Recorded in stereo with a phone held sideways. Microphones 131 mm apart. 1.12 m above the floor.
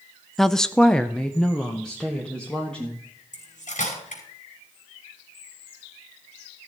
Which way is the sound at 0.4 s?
Centre (ahead or behind).